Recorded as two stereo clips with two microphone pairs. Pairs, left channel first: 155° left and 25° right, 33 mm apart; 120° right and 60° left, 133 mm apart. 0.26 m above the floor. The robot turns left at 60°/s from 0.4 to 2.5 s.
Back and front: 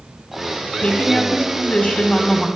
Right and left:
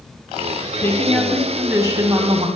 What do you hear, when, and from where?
0.8 s a woman speaking: straight behind, 1.9 m; by 2.5 s 80° left, 1.9 m